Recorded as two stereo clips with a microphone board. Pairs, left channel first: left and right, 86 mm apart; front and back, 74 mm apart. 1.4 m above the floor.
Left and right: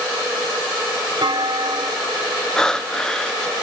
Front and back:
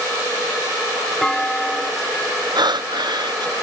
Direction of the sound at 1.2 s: 80° right.